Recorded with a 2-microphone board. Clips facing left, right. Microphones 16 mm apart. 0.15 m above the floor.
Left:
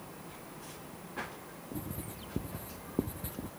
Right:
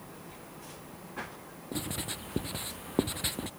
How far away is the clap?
I don't hear a clap.